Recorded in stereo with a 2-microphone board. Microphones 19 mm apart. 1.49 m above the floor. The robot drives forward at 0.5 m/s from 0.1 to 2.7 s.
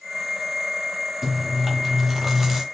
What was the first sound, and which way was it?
Chewing, 10° right (ahead or behind).